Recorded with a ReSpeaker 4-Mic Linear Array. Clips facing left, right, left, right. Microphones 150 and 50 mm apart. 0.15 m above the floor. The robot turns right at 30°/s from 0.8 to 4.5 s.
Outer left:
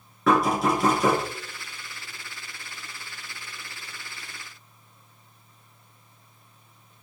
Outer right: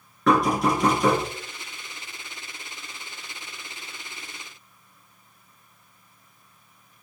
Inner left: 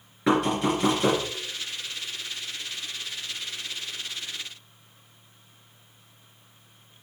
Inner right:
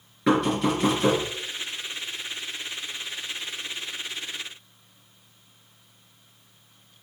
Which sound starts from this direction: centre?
Knocking, at 0.3 s.